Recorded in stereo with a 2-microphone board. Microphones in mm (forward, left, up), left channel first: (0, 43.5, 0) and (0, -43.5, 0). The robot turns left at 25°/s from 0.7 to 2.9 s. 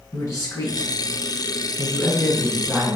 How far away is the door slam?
No door slam in this recording.